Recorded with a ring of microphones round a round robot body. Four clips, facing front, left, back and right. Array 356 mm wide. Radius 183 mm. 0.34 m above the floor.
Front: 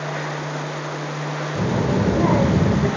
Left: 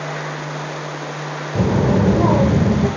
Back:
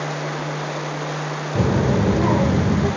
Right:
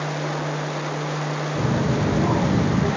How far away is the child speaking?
About 0.6 m.